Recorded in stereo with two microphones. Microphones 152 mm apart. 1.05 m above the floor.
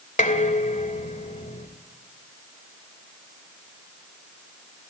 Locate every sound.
0.2 s dishes clattering: 55° left (ahead or behind), 2.5 m